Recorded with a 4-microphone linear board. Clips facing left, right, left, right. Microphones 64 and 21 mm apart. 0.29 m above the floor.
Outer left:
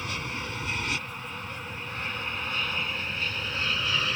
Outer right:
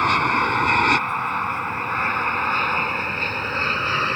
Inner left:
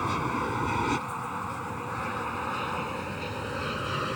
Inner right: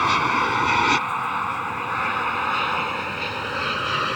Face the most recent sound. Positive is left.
turn(degrees=-40)  # may be behind; listen again after turning